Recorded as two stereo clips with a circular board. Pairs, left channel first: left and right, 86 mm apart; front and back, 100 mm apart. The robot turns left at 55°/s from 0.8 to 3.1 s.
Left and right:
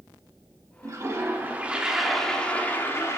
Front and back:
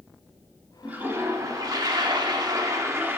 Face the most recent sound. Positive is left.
turn(degrees=125)